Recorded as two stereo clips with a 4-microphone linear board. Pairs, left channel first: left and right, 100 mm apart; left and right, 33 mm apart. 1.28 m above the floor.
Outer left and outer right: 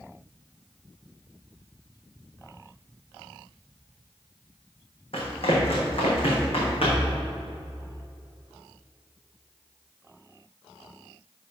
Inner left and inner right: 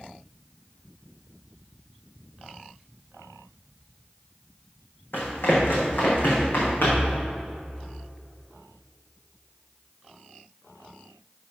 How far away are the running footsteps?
About 3 m.